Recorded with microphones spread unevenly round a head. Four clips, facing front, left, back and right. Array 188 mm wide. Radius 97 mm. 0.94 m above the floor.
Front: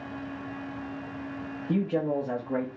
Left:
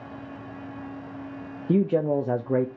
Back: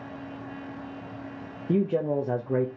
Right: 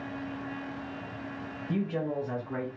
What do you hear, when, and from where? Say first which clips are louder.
1.7 s a man speaking: left 9 dB, back 2 dB; 110° left, 0.6 m